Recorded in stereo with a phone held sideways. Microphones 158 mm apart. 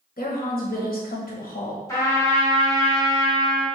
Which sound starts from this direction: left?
A woman speaking, at 0.2 s.